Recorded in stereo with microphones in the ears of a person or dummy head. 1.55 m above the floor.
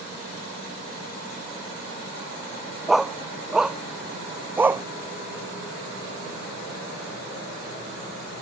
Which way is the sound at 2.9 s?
Centre (ahead or behind).